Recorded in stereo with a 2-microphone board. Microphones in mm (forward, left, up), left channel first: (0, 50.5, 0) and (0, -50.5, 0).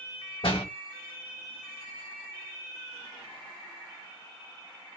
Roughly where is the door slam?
Left.